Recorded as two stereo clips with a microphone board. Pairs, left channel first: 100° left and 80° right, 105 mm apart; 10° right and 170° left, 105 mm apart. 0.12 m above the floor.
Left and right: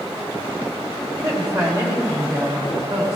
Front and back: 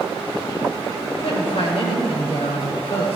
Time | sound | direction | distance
1.1 | a woman speaking | 20° right | 5 m